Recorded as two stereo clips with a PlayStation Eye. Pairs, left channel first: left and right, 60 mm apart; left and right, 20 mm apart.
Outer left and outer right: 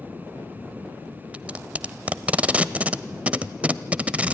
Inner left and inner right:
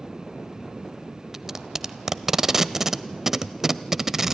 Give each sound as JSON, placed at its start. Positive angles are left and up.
{"t": 1.3, "sound": "tape being pulled", "side_deg": -20, "distance_m": 0.5}